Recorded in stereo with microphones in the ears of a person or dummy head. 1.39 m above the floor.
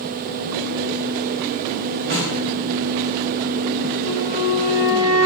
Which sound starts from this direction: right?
A snare drum, at 2.1 s.